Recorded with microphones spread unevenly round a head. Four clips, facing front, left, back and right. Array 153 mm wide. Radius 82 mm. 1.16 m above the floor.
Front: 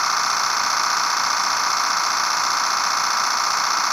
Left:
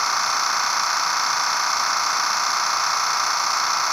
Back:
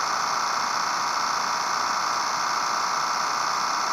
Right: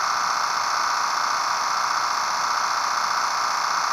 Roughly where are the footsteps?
I don't hear footsteps.